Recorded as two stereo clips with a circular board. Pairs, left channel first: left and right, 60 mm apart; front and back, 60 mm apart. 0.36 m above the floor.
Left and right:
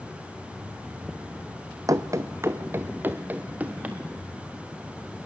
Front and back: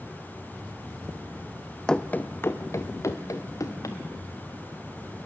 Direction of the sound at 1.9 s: 80° right.